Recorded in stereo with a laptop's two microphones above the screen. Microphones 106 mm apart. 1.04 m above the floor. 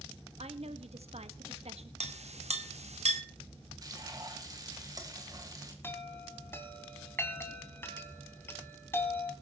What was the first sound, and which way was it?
A woman speaking, 70° right (ahead or behind).